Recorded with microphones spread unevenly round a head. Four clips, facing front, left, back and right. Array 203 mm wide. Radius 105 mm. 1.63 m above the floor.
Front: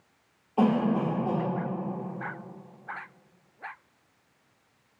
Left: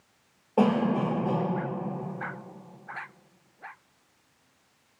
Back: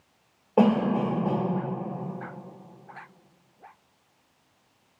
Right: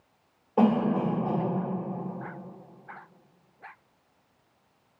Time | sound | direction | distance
0.6 | a cough | 175° left | 1.2 m